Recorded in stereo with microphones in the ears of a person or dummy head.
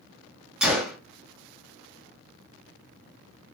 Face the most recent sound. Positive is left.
turn(degrees=-5)  # may be behind; listen again after turning